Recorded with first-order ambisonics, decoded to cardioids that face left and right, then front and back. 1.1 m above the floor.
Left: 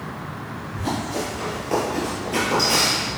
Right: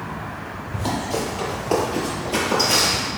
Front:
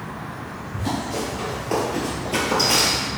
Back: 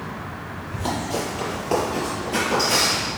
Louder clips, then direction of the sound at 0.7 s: Right 2 dB, back 1 dB; 135° right.